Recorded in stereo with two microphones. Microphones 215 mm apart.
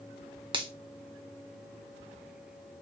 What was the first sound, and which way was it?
A finger snap, 20° right (ahead or behind).